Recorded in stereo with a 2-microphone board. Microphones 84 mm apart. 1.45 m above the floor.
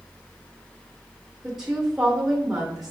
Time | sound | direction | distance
1.4 | a woman speaking | 5° right (ahead or behind) | 0.8 m